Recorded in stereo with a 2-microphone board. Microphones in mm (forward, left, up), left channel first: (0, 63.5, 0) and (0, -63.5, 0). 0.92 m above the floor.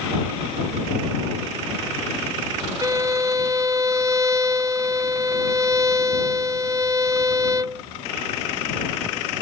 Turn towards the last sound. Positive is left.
turn(degrees=-25)  # may be behind; listen again after turning